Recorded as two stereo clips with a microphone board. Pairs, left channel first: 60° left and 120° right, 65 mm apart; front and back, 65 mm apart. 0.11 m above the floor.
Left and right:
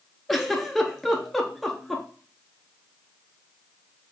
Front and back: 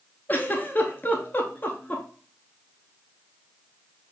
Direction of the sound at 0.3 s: 30° right.